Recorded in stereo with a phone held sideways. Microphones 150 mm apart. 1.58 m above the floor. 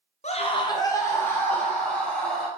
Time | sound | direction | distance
0.2 | a scream | 50° left (ahead or behind) | 0.7 m